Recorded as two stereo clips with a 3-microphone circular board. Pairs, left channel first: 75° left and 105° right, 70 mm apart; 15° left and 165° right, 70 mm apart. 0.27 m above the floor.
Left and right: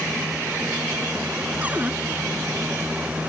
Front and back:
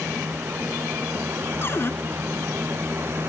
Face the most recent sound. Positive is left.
turn(degrees=-35)